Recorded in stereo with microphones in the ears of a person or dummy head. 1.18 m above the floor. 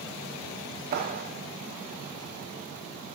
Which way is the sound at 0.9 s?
50° right (ahead or behind).